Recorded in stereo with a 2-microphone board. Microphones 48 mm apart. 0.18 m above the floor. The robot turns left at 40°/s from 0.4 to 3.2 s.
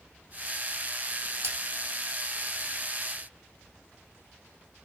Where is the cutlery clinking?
70° right (ahead or behind), 4.5 m; by 1.6 s 75° right (ahead or behind), 4.5 m.